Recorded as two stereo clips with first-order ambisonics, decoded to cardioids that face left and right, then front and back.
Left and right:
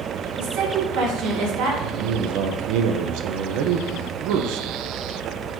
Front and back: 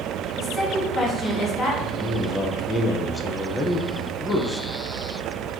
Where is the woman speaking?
70° right, 1.4 m.